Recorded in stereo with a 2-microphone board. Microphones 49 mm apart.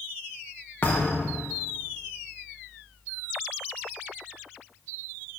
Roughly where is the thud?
Left.